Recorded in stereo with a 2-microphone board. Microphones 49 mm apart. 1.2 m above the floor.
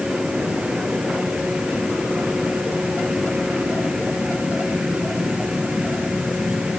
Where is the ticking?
I don't hear ticking.